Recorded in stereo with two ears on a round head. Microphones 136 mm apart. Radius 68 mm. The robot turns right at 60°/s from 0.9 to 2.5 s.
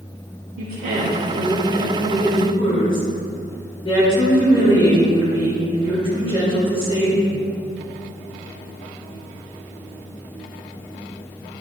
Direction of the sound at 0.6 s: 60° right.